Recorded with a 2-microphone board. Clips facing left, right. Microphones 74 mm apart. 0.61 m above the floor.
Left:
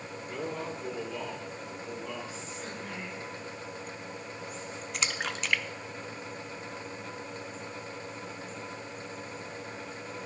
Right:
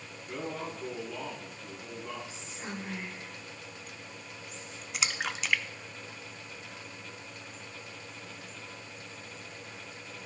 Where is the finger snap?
No finger snap in this recording.